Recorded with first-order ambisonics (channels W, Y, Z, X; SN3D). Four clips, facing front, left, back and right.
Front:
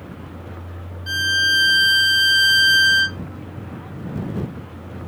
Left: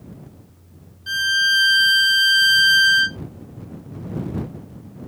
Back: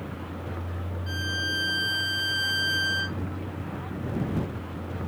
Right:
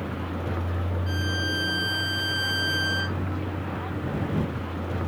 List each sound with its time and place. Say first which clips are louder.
0.0 s a vehicle: right 12 dB, even; 95° right; by 5.1 s 90° right
1.1 s a violin: left 12 dB, front 12 dB; 50° left